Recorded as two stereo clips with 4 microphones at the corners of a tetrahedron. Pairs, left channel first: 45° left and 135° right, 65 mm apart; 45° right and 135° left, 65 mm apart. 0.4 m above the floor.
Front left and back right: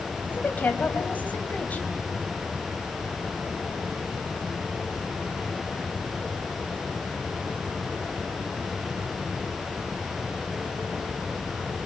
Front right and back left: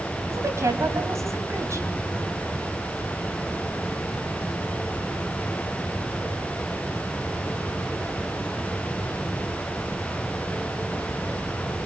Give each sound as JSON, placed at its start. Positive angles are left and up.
{"t": 0.3, "sound": "a woman speaking", "azimuth_deg": 105, "distance_m": 3.0}